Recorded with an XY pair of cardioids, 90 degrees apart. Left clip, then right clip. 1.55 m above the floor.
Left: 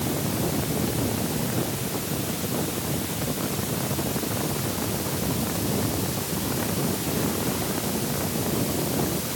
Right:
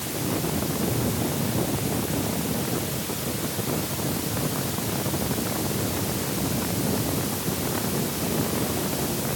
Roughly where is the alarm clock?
No alarm clock in this recording.